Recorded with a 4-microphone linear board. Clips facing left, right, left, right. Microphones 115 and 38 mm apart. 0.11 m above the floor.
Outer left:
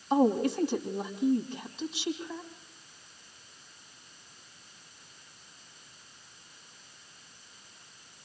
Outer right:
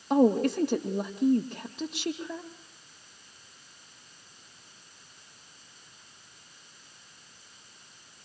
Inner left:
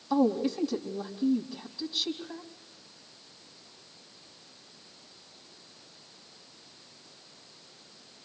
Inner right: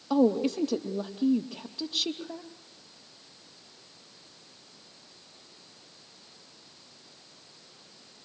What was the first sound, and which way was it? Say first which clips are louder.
A woman speaking: outer right 2 dB, inner right 2 dB; 60° right (ahead or behind).